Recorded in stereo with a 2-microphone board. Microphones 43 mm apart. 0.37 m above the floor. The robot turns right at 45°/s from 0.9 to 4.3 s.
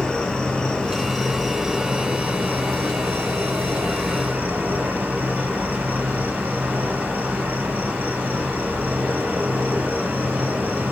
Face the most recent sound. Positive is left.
turn(degrees=-50)